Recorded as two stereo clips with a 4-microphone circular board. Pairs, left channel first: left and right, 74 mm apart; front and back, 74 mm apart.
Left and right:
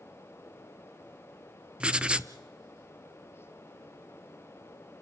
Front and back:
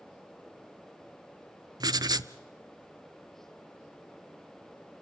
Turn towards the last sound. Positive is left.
turn(degrees=-165)